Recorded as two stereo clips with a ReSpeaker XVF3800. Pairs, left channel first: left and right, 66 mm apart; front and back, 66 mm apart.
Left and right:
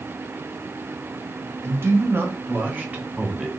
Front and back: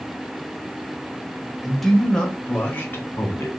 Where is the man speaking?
90° right, 1.1 m; by 3.5 s 25° right, 1.3 m.